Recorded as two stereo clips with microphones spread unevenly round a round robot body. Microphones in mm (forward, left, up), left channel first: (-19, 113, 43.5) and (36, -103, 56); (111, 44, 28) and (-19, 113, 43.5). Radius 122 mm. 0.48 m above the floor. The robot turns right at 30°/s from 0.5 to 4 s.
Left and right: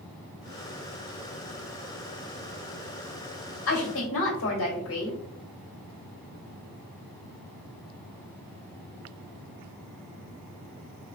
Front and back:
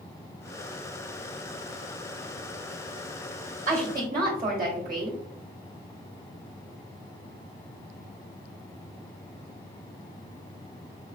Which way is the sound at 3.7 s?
115° left.